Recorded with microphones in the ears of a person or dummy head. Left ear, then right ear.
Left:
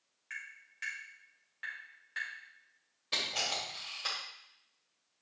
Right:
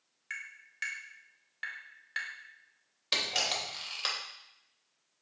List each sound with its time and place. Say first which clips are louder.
0.3 s tapping: right 3 dB; 25° right (ahead or behind), 2 m
3.1 s a camera shutter: right 3 dB; 30° right (ahead or behind), 2.5 m